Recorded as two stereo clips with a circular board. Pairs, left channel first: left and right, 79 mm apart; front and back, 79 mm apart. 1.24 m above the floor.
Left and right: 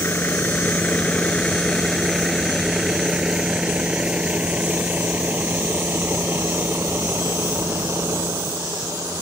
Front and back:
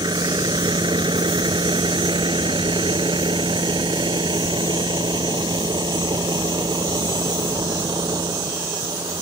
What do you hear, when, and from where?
0.0 s a vehicle: 150° left; by 9.2 s 145° right